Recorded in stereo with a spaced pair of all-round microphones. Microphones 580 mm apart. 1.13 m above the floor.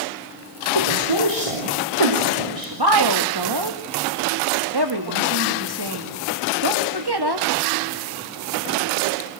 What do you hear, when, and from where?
0.8 s a woman speaking: 70° right (ahead or behind), 4 m; by 2.8 s 85° right, 4 m
2.7 s a woman speaking: 45° right (ahead or behind), 2 m